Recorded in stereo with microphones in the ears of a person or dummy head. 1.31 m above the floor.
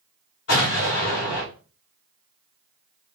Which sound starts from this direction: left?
An explosion, at 0.5 s.